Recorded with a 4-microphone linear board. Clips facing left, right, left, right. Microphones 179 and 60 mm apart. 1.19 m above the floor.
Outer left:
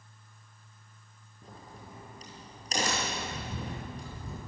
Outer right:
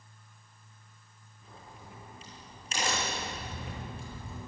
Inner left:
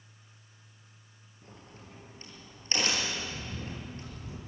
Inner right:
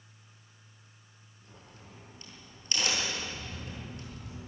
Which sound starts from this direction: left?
A crack, at 1.4 s.